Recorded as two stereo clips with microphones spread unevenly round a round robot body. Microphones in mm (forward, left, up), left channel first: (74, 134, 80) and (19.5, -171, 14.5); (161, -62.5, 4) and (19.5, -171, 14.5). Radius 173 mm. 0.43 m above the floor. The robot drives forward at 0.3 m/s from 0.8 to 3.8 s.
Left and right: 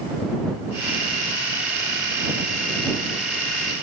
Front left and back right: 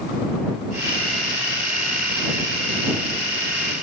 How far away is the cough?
I don't hear a cough.